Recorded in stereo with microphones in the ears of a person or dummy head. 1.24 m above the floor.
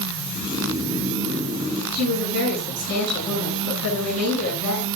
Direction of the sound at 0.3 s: 20° right (ahead or behind).